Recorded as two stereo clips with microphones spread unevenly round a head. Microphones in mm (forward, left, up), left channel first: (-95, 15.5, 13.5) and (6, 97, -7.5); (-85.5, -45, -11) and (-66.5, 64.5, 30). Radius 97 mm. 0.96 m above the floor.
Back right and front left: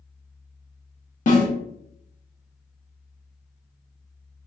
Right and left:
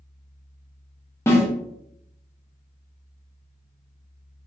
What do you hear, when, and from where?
1.3 s a snare drum: 150° right, 1.2 m